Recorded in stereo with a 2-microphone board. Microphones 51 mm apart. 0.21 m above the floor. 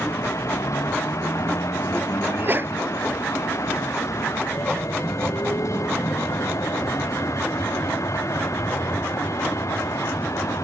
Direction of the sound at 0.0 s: 80° left.